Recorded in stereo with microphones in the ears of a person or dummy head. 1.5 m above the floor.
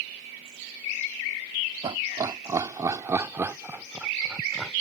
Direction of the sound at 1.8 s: 25° right (ahead or behind).